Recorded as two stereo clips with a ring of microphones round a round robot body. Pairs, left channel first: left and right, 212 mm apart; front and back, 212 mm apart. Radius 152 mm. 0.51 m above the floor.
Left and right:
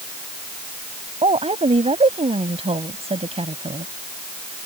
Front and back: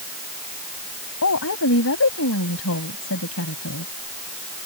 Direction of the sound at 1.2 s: 30° right.